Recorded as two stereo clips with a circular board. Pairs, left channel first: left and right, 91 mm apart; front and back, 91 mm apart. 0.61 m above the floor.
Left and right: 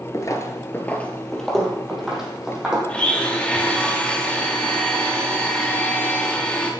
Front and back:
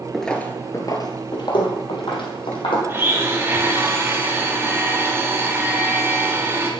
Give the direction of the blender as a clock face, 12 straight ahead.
7 o'clock.